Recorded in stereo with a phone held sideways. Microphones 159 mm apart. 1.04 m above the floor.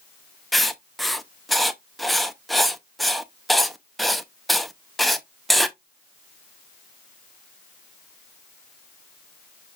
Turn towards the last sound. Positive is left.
turn(degrees=0)  # may be behind; listen again after turning